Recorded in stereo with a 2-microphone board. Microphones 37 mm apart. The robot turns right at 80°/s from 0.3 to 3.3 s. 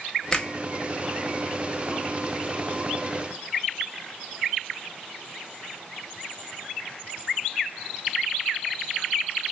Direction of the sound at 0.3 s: 20° left (ahead or behind).